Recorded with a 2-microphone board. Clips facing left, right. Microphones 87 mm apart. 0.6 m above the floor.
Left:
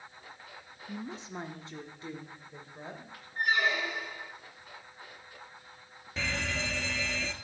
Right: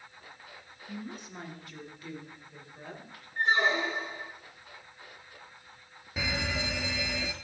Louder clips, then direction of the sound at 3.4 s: Right 2 dB; 30° right (ahead or behind).